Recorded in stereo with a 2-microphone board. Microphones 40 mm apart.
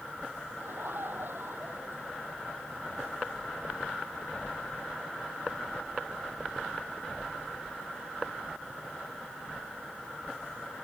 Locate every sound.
0.6 s laughter: 65° right (ahead or behind)